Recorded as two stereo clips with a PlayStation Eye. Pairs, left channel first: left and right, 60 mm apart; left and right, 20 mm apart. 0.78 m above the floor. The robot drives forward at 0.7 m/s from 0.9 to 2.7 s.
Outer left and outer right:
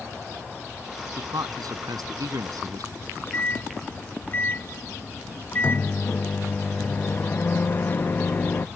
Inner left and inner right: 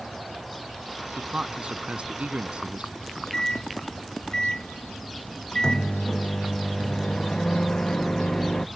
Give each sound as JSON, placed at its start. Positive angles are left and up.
{"t": 1.2, "sound": "a man speaking", "side_deg": -85}
{"t": 3.0, "sound": "a microwave", "side_deg": 35}